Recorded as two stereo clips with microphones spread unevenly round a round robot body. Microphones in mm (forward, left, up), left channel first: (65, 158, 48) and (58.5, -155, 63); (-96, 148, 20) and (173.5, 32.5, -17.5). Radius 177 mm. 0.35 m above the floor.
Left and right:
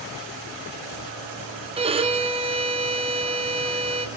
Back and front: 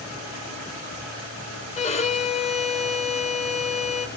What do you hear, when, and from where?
1.8 s a violin: 145° right, 0.9 m